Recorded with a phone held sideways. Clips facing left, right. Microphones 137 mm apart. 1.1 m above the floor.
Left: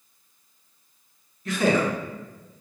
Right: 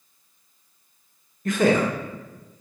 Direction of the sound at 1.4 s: 45° right (ahead or behind).